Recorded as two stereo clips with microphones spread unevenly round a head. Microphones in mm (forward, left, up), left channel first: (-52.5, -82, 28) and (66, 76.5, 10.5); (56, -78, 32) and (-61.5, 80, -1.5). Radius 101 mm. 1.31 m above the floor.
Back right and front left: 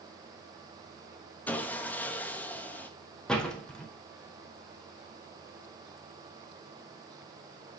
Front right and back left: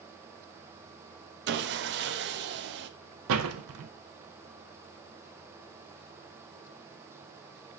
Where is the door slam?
150° left, 0.8 m.